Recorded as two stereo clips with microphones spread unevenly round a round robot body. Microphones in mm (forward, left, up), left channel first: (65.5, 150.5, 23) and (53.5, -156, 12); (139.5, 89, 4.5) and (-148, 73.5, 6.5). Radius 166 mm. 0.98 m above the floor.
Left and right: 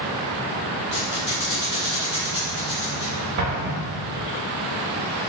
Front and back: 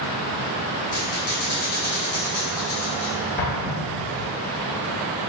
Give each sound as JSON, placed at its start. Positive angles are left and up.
{"t": 0.9, "sound": "a squeak", "azimuth_deg": 45, "distance_m": 2.5}
{"t": 3.4, "sound": "an explosion", "azimuth_deg": -60, "distance_m": 0.9}